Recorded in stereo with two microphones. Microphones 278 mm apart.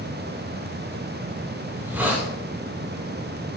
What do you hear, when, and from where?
1.7 s a hiss: 5° right (ahead or behind), 3 m